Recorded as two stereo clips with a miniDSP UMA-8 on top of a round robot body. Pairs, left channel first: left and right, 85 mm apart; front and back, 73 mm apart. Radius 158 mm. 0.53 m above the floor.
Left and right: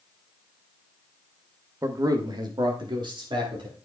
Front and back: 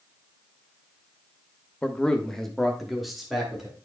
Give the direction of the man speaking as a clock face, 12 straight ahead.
2 o'clock.